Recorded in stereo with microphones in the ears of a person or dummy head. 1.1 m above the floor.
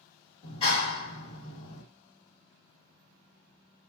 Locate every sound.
0.4 s a clap: 35° left (ahead or behind), 1.2 m